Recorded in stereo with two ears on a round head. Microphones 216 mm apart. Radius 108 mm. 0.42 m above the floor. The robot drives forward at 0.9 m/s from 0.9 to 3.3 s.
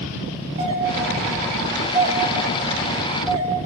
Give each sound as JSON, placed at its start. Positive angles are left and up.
{"t": 0.6, "sound": "a doorbell", "side_deg": -25, "distance_m": 1.5}